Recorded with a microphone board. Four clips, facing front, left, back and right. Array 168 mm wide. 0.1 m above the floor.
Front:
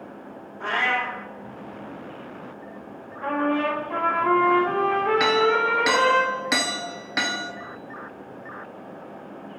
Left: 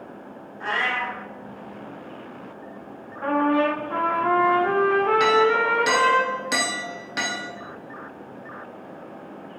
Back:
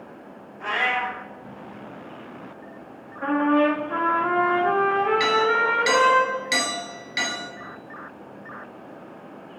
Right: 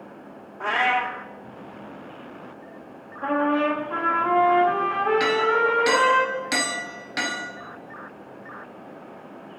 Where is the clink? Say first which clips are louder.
Left 2 dB, front 1 dB; 5° left, 0.9 m.